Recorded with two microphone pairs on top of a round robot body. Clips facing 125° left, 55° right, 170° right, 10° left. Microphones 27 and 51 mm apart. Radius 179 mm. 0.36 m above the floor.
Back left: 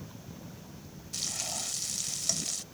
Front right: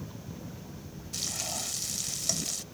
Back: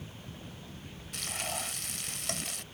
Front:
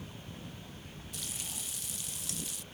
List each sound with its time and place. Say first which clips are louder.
1.1 s frying: front right 1 dB, back 10 dB; 145° right